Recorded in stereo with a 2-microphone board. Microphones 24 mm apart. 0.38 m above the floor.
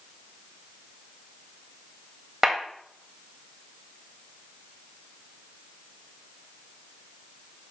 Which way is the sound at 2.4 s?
20° right (ahead or behind).